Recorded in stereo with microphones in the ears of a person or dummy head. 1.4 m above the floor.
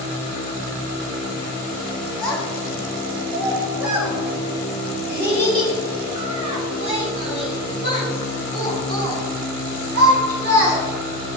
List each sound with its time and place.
2.2 s a child speaking: 5° left (ahead or behind), 2.5 m; by 10.8 s 60° right (ahead or behind), 5 m